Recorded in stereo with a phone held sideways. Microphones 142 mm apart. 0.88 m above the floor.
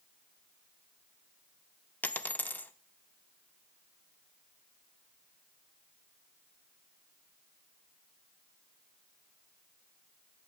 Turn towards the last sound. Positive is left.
turn(degrees=10)  # may be behind; listen again after turning